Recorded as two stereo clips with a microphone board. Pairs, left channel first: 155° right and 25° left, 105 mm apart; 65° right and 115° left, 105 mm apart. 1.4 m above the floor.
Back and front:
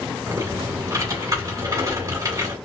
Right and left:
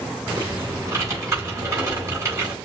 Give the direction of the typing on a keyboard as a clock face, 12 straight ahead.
10 o'clock.